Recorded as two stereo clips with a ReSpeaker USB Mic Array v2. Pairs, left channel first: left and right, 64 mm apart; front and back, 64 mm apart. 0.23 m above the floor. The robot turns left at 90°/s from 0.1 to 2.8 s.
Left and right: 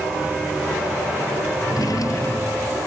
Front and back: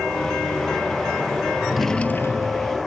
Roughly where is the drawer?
Left.